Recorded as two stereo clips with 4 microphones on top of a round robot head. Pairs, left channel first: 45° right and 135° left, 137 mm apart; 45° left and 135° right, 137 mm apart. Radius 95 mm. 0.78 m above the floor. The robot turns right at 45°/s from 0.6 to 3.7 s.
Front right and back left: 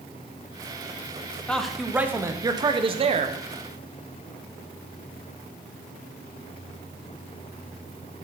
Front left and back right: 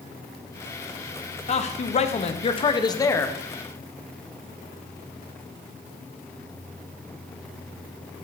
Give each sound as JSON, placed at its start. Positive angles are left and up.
{"t": 1.5, "sound": "a man speaking", "azimuth_deg": 35, "distance_m": 0.8}